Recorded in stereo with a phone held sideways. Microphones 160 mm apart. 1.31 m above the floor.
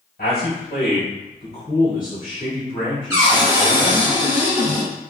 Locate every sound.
0.2 s a man speaking: 75° left (ahead or behind), 1.5 m; by 4.1 s 5° right (ahead or behind), 1.1 m
3.1 s a cupboard door: 20° right (ahead or behind), 1.3 m